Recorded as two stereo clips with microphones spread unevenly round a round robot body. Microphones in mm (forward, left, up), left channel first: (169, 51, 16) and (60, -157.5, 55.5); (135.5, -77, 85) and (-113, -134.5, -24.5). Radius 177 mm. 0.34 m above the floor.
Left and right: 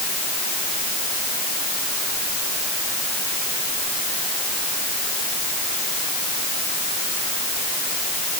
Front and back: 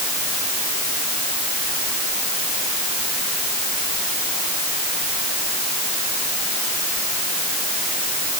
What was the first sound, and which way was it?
Only background noise.